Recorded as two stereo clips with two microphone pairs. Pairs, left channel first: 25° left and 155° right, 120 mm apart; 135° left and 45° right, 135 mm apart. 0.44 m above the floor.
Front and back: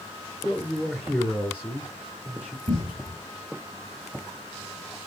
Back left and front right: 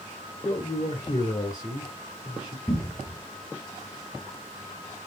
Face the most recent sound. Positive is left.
turn(degrees=-150)